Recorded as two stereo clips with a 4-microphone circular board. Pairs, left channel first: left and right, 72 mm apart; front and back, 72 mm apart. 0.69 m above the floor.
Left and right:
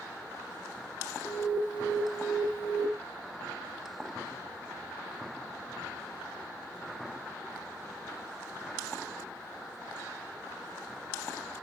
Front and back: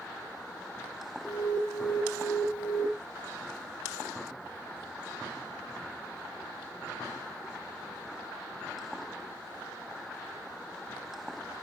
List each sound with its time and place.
1.2 s an alarm: 55° left, 1.4 m